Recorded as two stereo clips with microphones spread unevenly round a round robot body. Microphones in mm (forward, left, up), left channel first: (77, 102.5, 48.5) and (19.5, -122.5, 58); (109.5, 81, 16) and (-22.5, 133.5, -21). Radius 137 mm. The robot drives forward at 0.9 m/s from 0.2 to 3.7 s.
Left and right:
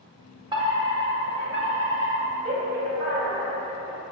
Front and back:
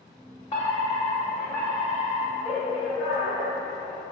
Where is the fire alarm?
55° right, 2 m; by 4.0 s 160° right, 3 m.